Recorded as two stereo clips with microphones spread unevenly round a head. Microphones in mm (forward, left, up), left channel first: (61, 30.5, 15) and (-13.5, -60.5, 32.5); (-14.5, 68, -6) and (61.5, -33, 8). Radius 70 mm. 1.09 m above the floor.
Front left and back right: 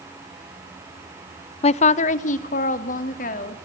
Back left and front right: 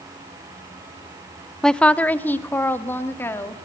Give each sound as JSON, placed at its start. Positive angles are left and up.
{"t": 1.6, "sound": "a woman speaking", "azimuth_deg": 45, "distance_m": 0.5}